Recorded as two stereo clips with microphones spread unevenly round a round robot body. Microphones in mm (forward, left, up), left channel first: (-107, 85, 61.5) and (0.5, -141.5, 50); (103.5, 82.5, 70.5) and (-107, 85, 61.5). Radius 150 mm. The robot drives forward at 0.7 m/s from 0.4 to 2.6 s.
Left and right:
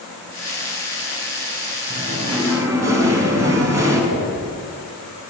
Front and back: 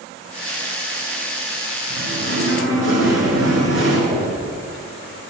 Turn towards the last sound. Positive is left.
turn(degrees=145)